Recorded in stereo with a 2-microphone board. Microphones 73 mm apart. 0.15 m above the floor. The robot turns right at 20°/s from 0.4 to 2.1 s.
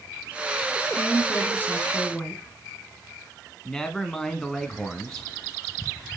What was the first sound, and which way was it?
A woman speaking, 30° left (ahead or behind).